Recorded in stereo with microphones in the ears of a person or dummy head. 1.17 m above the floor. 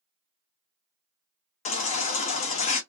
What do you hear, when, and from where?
1.6 s a baby crying: 40° left (ahead or behind), 0.6 m